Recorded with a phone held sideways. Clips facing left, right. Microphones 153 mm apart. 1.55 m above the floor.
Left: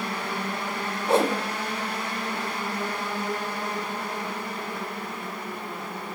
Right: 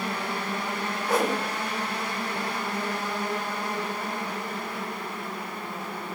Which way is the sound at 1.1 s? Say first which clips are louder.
Left 3 dB; 25° left (ahead or behind).